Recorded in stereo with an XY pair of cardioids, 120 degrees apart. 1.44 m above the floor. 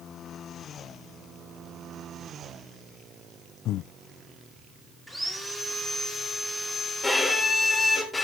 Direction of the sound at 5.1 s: Straight ahead.